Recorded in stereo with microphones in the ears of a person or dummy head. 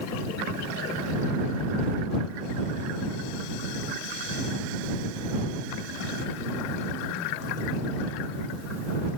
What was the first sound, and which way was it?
Only background noise.